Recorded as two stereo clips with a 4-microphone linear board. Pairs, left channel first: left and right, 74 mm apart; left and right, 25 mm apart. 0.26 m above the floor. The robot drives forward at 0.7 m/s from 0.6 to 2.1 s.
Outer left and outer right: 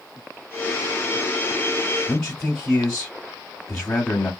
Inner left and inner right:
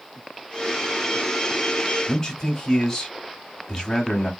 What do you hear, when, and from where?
2.1 s a man speaking: 10° left (ahead or behind), 1.2 m